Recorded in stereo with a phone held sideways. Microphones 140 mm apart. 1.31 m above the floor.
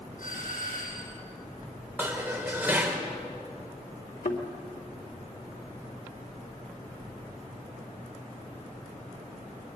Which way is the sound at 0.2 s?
75° left (ahead or behind).